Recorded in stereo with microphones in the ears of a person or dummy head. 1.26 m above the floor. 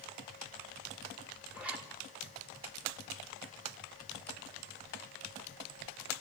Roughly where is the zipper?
Centre.